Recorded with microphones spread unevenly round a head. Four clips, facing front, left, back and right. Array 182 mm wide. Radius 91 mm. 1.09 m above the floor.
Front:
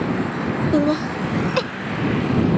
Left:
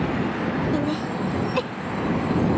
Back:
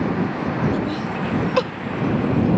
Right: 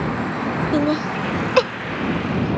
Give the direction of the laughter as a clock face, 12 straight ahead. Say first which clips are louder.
Right 5 dB, front 5 dB; 1 o'clock.